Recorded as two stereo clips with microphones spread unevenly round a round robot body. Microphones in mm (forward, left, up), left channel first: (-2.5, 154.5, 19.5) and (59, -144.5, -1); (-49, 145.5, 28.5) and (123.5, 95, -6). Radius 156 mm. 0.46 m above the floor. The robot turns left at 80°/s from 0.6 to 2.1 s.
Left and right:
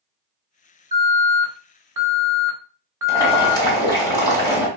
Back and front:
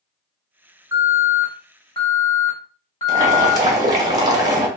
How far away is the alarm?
About 1.4 m.